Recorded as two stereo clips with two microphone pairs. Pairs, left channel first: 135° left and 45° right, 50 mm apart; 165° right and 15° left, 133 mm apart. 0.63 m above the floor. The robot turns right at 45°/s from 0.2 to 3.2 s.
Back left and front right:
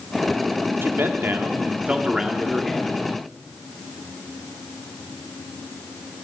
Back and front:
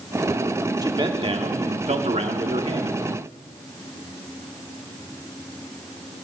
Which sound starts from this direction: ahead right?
A man speaking, at 0.8 s.